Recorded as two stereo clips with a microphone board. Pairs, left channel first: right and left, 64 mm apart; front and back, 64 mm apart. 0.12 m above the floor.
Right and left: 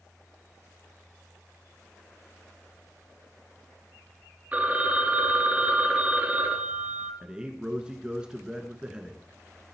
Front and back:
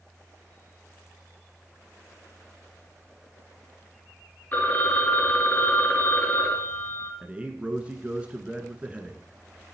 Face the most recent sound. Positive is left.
turn(degrees=145)